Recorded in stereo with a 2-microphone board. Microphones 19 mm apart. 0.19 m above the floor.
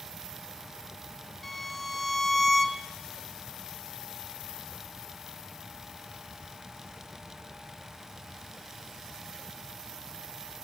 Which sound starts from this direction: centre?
A violin, at 1.4 s.